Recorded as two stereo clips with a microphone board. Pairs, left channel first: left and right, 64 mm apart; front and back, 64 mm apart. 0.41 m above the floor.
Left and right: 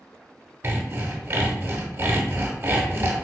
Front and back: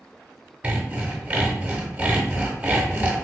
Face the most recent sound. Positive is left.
turn(degrees=-125)